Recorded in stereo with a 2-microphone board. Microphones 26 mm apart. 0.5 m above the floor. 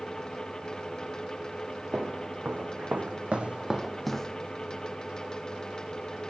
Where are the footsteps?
80° right, 2 m; by 4.4 s 25° left (ahead or behind), 1.0 m.